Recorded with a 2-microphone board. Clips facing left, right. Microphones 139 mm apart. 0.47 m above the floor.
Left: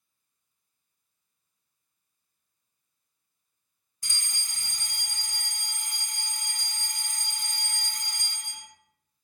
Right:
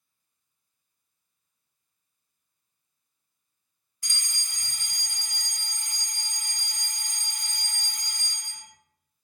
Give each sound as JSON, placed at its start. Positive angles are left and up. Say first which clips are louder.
{"t": 4.0, "sound": "a fire alarm", "louder": "even", "side_deg": 35, "distance_m": 2.0}